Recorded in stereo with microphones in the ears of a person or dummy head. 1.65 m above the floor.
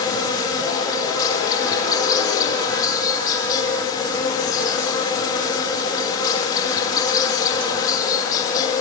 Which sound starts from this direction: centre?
An insect, at 0.0 s.